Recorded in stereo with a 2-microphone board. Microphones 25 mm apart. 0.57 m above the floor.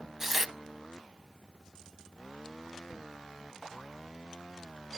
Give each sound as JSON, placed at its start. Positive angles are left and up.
{"t": 0.2, "sound": "tearing paper", "side_deg": -10, "distance_m": 0.5}